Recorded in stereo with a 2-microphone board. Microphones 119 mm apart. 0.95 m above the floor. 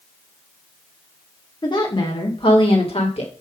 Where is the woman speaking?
40° left (ahead or behind), 2.5 m; by 3.3 s 60° left (ahead or behind), 3 m.